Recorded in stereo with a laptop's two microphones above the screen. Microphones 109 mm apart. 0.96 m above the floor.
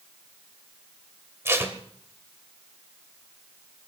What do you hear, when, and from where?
1.4 s tape being pulled: 25° right (ahead or behind), 1.3 m